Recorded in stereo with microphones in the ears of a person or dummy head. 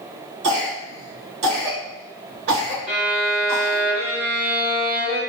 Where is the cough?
85° right, 1.5 m.